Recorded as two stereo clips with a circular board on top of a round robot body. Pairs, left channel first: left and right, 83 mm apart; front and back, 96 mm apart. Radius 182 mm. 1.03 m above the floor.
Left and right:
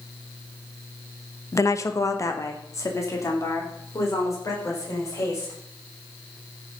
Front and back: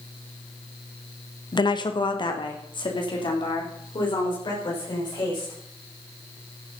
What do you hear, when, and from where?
1.5 s a woman speaking: 40° left, 1.0 m; by 5.5 s 35° left, 6.5 m